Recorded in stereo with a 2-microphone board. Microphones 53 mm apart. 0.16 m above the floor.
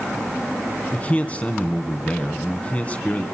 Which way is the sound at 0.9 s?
25° left (ahead or behind).